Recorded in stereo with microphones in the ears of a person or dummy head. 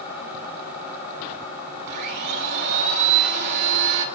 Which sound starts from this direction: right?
A blender, at 1.9 s.